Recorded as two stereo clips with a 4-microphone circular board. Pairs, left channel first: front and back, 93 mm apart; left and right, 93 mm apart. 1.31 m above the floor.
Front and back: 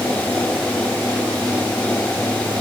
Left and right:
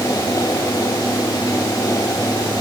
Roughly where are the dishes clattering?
No dishes clattering in this recording.